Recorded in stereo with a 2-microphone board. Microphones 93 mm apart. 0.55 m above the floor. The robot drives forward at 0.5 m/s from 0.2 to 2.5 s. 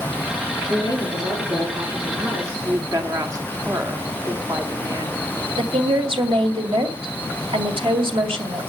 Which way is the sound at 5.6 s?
70° right (ahead or behind).